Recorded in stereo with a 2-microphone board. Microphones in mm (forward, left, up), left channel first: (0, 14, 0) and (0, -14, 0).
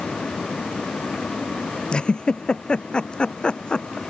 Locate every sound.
1.9 s a giggle: 35° left (ahead or behind)